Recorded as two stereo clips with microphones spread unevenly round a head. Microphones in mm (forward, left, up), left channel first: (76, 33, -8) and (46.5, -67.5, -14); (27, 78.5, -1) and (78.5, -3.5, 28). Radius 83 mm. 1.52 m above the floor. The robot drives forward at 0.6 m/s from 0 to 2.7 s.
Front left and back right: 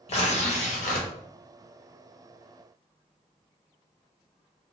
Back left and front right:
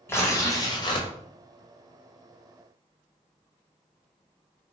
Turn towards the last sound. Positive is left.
turn(degrees=140)